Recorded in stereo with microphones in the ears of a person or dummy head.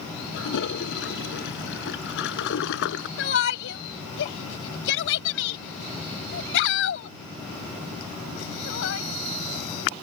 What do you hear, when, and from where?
0.3 s a toilet flushing: 70° left (ahead or behind)
3.2 s a shout: 70° left (ahead or behind)